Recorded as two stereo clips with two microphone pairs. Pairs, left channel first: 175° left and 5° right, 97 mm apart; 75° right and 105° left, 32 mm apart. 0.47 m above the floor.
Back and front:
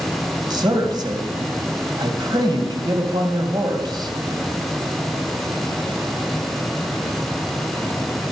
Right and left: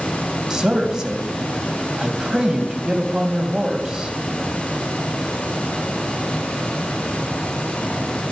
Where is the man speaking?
35° left, 2.5 m.